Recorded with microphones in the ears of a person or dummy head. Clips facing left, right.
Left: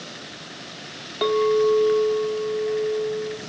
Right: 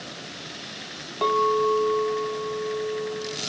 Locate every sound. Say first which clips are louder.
1.2 s a clink: left 4 dB; 25° left (ahead or behind), 0.5 m